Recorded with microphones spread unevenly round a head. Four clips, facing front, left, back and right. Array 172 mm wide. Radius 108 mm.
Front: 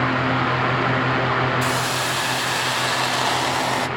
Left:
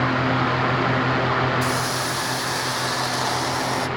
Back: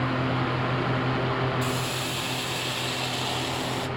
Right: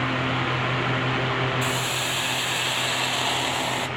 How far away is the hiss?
About 0.9 m.